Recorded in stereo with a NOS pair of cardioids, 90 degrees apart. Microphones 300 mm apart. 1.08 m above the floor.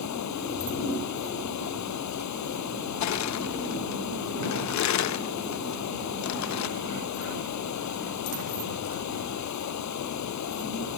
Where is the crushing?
65° left.